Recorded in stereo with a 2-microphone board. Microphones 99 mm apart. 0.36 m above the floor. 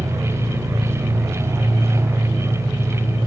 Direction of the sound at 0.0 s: 40° right (ahead or behind).